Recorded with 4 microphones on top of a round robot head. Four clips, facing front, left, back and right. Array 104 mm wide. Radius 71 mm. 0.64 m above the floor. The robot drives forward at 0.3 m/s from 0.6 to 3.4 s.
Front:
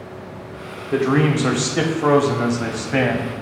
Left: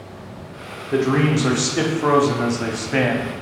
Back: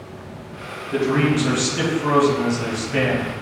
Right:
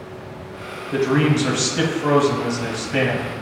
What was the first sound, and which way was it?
A man speaking, 25° left.